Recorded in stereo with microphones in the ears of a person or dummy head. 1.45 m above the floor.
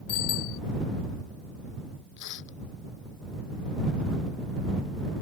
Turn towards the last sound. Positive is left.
turn(degrees=70)  # may be behind; listen again after turning